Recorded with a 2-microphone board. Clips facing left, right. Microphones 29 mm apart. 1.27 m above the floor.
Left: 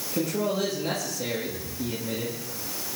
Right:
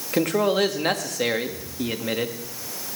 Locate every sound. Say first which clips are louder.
0.1 s a man speaking: right 6 dB; 80° right, 1.8 m